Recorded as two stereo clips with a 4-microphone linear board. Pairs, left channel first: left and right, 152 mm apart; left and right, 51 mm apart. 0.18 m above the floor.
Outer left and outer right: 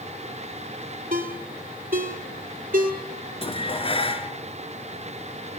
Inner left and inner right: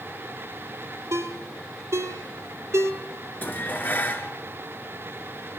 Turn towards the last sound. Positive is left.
turn(degrees=40)  # may be behind; listen again after turning